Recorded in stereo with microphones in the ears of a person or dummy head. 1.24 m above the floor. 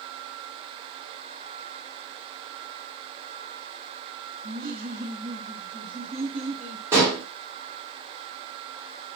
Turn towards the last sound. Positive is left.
turn(degrees=-15)  # may be behind; listen again after turning